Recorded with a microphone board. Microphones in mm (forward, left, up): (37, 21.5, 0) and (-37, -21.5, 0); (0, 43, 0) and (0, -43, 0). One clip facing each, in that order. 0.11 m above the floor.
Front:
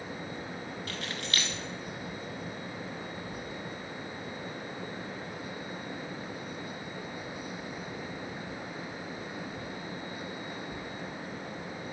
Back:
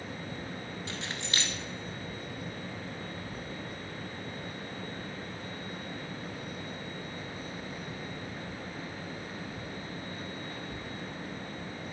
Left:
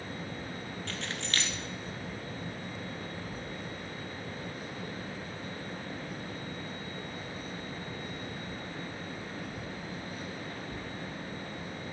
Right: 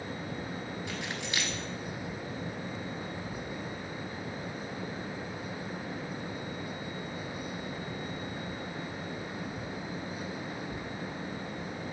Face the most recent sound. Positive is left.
turn(degrees=-150)